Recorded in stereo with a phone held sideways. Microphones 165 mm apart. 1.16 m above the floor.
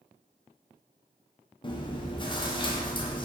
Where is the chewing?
30° left (ahead or behind), 0.5 m.